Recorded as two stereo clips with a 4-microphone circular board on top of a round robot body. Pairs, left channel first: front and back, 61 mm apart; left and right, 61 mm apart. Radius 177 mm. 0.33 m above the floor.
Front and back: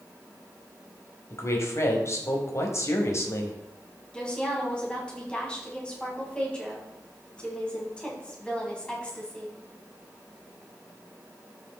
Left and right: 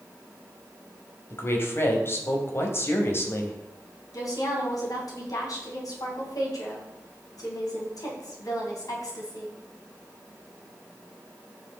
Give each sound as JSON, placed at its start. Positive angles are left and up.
{"t": 1.3, "sound": "a woman speaking", "azimuth_deg": 45, "distance_m": 2.5}
{"t": 4.1, "sound": "a woman speaking", "azimuth_deg": 75, "distance_m": 3.5}